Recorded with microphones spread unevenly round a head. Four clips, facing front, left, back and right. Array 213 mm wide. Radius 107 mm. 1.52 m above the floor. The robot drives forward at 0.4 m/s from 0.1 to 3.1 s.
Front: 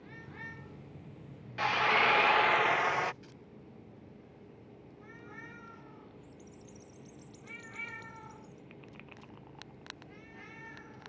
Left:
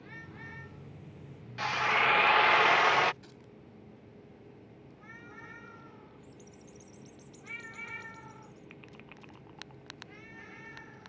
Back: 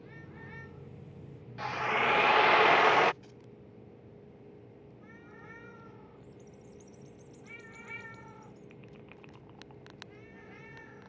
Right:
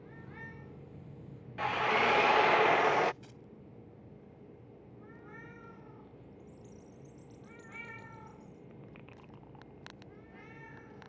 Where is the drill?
45° right; by 3.1 s 160° right.